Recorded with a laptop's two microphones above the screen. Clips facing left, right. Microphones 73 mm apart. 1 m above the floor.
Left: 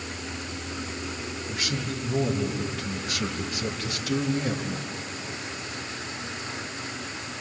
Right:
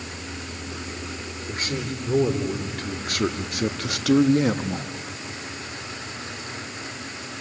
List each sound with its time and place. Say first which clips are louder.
1.5 s a man speaking: right 3 dB; 40° right (ahead or behind), 3 m; by 4.9 s 65° right (ahead or behind), 1.1 m